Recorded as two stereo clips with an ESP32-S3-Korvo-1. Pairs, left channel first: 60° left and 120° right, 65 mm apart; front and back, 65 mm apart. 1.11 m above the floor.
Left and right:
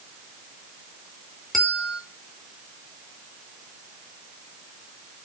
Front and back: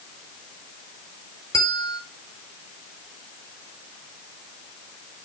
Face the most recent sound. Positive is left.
turn(degrees=-25)